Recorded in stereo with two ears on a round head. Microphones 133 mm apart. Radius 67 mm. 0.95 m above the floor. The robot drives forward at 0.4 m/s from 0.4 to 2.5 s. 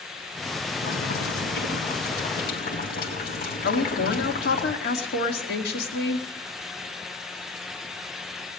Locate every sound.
0.8 s boiling: 75° left (ahead or behind), 5 m; by 4.6 s 70° left (ahead or behind), 5.5 m
3.6 s a woman speaking: 75° left (ahead or behind), 2 m